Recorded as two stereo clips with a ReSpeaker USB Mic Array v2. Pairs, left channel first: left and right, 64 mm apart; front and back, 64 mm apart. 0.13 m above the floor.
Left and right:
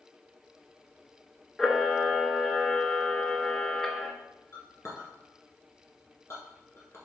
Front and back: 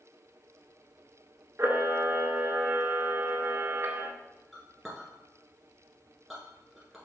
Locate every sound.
1.6 s a camera shutter: 170° left, 0.5 m
4.5 s a clink: 95° left, 1.3 m